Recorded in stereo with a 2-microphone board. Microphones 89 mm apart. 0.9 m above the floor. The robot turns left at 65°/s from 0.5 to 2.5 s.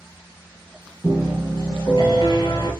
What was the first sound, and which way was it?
A piano, 160° left.